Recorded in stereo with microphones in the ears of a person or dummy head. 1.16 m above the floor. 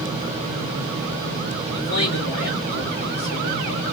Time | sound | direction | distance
1.7 | a man speaking | 65° left (ahead or behind) | 2.5 m